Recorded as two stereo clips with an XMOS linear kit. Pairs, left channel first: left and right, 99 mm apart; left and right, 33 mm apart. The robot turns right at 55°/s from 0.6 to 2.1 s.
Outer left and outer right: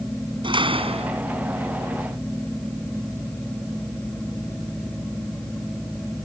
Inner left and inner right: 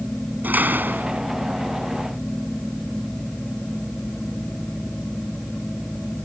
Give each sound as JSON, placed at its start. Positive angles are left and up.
{"t": 0.4, "sound": "a door slam", "azimuth_deg": -120}